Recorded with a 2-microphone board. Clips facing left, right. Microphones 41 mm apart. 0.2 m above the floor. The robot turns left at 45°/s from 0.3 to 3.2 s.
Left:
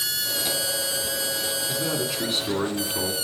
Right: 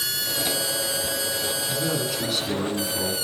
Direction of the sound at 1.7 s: Straight behind.